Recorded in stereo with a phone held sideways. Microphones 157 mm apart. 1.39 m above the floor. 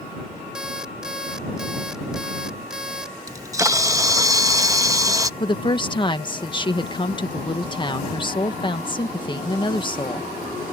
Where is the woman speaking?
30° left (ahead or behind).